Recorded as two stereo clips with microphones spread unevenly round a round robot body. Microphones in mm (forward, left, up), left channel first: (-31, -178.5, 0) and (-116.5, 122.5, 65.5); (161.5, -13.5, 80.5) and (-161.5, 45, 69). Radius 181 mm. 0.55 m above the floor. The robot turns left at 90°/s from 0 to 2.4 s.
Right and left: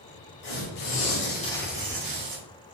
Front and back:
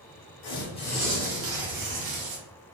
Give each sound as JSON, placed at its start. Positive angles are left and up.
{"t": 0.4, "sound": "tearing paper", "azimuth_deg": -50, "distance_m": 1.4}